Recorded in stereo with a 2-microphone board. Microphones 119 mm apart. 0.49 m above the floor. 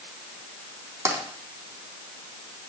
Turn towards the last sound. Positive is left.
turn(degrees=-25)  # may be behind; listen again after turning